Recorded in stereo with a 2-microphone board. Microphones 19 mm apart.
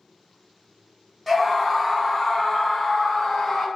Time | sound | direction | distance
1.3 | a scream | 5° right (ahead or behind) | 1.3 m